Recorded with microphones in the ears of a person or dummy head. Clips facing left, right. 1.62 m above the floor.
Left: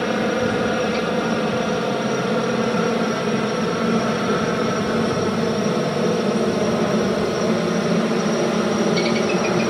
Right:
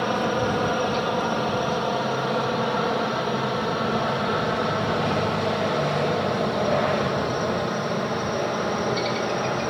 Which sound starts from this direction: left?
A helicopter, at 0.0 s.